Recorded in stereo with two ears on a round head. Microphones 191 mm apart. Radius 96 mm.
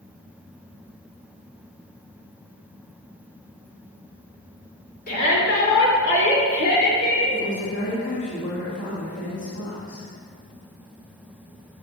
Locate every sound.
5.1 s a shout: 50° left (ahead or behind), 3 m; by 7.3 s 65° left (ahead or behind), 3.5 m
7.3 s a woman speaking: 65° left (ahead or behind), 2.5 m